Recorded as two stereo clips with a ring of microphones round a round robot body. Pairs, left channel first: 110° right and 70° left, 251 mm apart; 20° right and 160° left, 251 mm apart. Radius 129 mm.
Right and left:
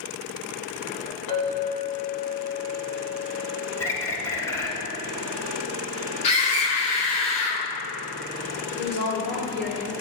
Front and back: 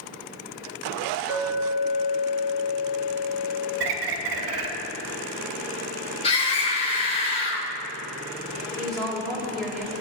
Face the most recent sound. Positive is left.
turn(degrees=-110)